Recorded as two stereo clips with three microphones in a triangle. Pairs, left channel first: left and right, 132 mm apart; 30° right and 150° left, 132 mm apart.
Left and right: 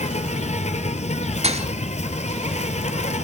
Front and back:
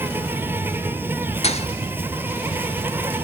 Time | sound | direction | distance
0.0 | an insect | 80° left | 1.4 m
1.4 | a thud | 60° right | 1.6 m